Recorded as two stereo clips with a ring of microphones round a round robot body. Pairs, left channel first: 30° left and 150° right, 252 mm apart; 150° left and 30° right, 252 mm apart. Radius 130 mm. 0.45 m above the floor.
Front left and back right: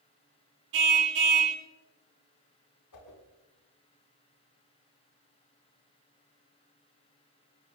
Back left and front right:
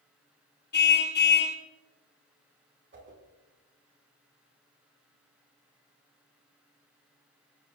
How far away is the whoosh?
About 5.5 m.